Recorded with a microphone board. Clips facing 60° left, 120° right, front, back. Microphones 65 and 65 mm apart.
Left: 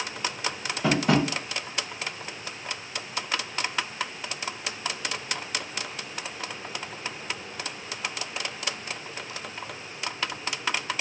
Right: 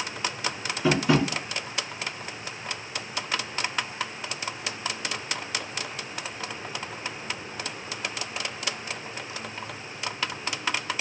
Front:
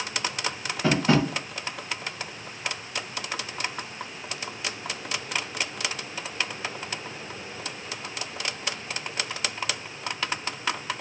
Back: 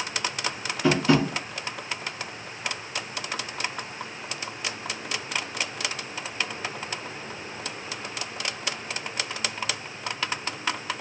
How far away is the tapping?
About 1.3 m.